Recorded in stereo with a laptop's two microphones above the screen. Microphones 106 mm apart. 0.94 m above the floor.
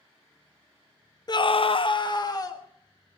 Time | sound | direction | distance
1.3 | a scream | 40° left (ahead or behind) | 0.6 m